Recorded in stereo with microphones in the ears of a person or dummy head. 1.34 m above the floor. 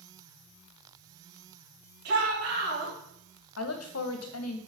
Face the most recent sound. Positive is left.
turn(degrees=75)  # may be behind; listen again after turning